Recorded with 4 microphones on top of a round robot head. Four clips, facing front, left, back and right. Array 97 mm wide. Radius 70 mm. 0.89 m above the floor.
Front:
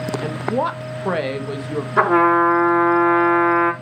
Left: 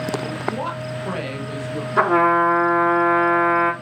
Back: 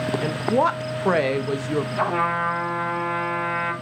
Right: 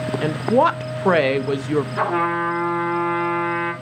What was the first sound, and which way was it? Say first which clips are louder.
A woman speaking: right 9 dB, back 2 dB; 100° right.